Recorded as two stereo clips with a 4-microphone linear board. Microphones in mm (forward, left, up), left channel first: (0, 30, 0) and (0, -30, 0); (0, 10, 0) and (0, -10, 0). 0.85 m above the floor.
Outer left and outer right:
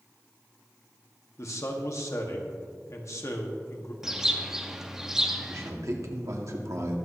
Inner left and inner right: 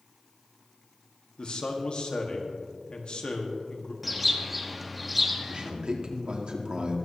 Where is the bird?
5° right (ahead or behind), 1.0 m.